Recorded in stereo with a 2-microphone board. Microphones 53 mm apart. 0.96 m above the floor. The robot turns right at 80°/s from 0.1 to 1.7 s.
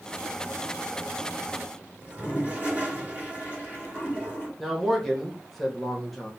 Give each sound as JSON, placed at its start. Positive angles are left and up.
{"t": 2.0, "sound": "a toilet flushing", "side_deg": -30, "distance_m": 1.7}
{"t": 4.6, "sound": "a man speaking", "side_deg": 5, "distance_m": 1.0}